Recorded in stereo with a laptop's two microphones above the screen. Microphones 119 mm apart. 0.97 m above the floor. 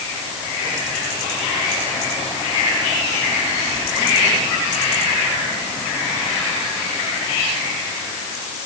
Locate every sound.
Only background noise.